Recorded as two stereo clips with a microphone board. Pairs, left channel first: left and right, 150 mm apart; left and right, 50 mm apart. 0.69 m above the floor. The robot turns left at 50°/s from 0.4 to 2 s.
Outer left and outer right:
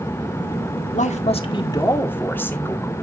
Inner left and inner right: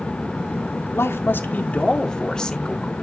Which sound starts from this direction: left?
A man speaking, at 0.9 s.